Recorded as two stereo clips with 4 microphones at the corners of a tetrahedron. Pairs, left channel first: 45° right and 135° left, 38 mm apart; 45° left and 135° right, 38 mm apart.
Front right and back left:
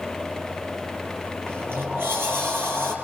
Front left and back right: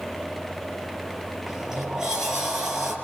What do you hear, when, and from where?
1.5 s a sliding door: 150° left, 8 m